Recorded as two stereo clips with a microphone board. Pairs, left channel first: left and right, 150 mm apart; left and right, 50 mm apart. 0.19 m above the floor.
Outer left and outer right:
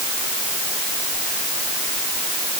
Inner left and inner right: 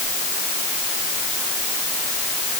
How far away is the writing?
I don't hear writing.